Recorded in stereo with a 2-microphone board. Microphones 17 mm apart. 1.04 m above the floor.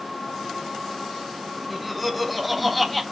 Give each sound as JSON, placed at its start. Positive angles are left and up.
{"t": 1.7, "sound": "laughter", "side_deg": -5, "distance_m": 1.3}